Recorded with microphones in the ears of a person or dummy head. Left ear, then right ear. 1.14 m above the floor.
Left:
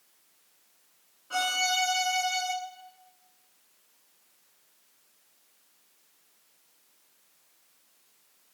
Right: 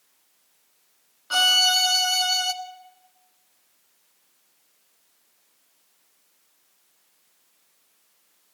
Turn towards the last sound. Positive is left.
turn(degrees=-65)  # may be behind; listen again after turning